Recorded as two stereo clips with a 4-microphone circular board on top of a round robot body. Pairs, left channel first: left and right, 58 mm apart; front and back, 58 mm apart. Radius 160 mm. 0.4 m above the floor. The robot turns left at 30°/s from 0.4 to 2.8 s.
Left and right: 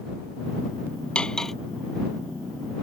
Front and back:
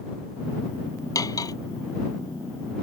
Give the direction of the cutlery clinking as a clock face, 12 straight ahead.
11 o'clock.